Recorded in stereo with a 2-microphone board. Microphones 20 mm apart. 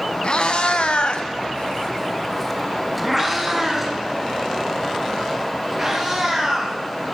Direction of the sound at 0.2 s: 60° left (ahead or behind).